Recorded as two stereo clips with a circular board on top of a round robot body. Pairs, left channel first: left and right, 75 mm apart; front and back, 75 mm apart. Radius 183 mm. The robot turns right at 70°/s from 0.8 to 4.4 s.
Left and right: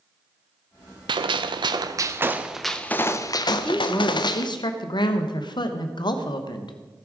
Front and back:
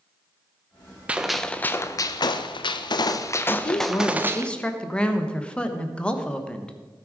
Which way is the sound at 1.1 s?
105° right.